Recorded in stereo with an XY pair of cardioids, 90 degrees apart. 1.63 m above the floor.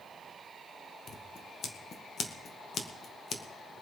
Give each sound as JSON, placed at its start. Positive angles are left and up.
{"t": 1.1, "sound": "scissors", "azimuth_deg": 60, "distance_m": 1.8}